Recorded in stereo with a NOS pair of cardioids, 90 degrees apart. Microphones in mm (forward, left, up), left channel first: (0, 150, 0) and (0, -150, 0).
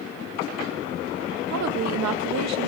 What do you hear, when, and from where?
1.5 s a woman speaking: 65° right, 1.7 m